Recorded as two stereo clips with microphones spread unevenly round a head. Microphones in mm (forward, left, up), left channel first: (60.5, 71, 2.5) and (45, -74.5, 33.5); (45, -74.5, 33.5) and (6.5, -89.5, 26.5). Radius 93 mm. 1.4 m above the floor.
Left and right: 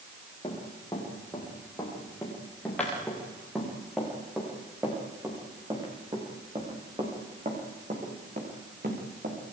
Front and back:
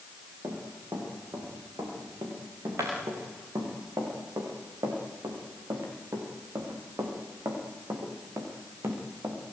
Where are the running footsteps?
160° left, 9 m; by 9.4 s 140° right, 7 m.